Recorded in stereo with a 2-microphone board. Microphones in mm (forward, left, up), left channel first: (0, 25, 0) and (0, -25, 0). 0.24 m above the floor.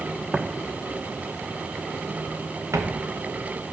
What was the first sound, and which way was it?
Footsteps, 20° right (ahead or behind).